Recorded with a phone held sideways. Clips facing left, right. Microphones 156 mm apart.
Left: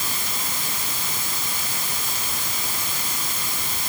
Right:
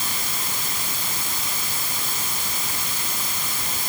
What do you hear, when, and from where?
Only background noise.